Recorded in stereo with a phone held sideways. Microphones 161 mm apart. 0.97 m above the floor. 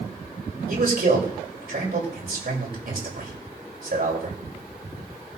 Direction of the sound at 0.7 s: 70° right (ahead or behind).